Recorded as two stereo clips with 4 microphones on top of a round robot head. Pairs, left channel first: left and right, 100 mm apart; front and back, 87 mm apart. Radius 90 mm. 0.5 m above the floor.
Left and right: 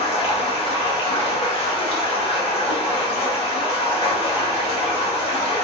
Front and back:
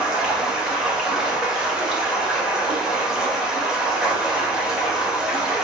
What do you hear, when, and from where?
0.0 s running water: 95° left, 1.2 m